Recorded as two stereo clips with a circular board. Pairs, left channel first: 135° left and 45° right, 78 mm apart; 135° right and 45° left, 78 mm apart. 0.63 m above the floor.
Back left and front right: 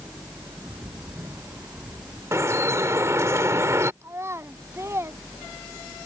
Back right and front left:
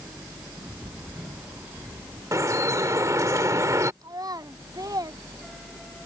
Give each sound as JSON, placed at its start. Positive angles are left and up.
{"t": 0.6, "sound": "a bird", "azimuth_deg": -20}
{"t": 2.3, "sound": "dripping", "azimuth_deg": 5}
{"t": 4.0, "sound": "a child speaking", "azimuth_deg": 10}